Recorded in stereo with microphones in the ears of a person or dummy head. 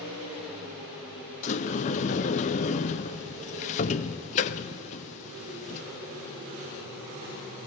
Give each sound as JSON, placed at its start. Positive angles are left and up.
{"t": 1.4, "sound": "a sliding door", "side_deg": 40, "distance_m": 0.5}